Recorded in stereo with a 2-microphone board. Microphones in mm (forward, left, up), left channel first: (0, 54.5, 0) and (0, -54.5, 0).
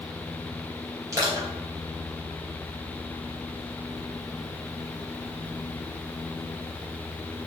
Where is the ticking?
No ticking in this recording.